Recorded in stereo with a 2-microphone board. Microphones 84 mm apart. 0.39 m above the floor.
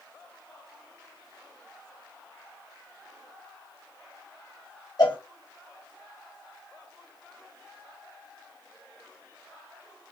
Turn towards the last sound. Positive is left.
turn(degrees=55)  # may be behind; listen again after turning